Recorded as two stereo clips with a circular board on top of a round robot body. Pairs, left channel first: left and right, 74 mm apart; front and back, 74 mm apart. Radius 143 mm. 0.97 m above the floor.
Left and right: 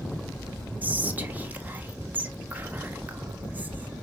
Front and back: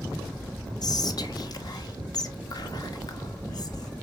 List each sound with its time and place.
0.8 s whispering: 25° right, 1.0 m